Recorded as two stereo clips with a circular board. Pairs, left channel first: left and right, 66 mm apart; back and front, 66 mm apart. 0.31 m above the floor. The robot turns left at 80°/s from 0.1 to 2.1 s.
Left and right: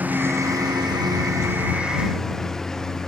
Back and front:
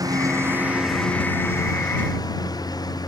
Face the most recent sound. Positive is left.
turn(degrees=175)